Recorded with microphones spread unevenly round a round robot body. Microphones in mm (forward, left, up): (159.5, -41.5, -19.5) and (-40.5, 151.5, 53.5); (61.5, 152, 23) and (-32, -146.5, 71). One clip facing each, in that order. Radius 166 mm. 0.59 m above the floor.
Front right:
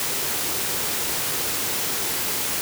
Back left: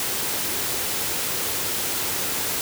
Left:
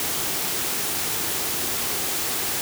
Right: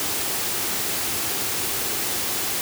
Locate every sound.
Only background noise.